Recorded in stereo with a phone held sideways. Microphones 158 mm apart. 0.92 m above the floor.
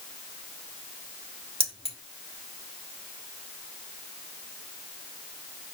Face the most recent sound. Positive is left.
turn(degrees=-35)  # may be behind; listen again after turning